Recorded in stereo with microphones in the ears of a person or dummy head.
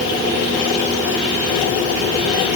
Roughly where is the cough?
No cough in this recording.